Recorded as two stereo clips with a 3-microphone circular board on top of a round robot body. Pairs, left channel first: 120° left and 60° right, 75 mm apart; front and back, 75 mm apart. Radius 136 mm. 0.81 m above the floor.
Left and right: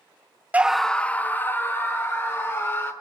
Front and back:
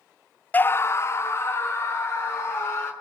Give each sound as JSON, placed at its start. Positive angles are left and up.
{"t": 0.5, "sound": "a scream", "azimuth_deg": -20, "distance_m": 0.6}